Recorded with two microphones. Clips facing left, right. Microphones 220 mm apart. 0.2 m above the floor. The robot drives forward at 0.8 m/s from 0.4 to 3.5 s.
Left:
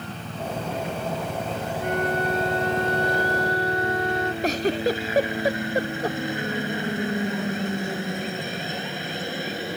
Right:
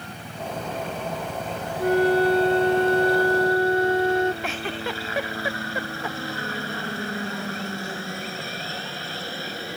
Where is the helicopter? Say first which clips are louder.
Left 2 dB; 15° left (ahead or behind); by 9.8 s 20° left (ahead or behind).